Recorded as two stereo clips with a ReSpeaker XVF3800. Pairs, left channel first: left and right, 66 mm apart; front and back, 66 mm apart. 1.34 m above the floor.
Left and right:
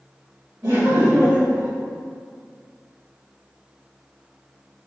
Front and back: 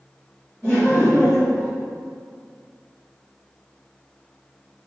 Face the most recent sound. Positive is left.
turn(degrees=-110)